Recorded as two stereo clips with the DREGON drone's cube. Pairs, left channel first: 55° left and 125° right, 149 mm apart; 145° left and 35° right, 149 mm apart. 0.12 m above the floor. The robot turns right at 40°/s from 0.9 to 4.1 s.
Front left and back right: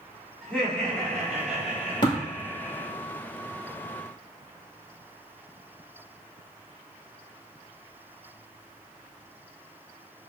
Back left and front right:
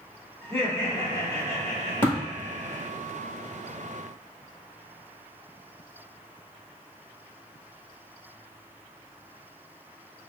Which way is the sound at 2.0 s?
85° left.